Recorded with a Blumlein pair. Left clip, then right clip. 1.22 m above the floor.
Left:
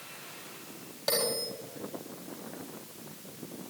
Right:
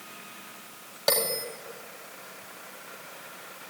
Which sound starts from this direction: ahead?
A bell, at 1.1 s.